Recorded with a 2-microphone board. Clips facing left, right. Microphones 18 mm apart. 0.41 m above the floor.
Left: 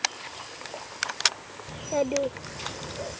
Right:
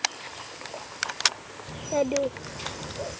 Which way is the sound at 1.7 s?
Centre (ahead or behind).